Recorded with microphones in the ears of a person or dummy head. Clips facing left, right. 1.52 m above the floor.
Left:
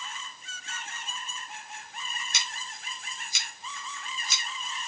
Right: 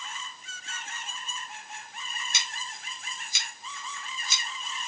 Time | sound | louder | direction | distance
2.3 | scissors | even | 80° left | 4 m